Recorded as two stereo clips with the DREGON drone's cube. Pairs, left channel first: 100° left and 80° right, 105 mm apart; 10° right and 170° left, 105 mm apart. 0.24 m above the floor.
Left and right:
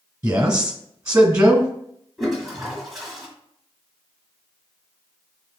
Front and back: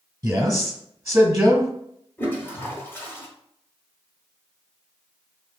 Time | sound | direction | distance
0.2 | a man speaking | 130° right | 1.2 m
2.2 | a toilet flushing | 5° left | 1.5 m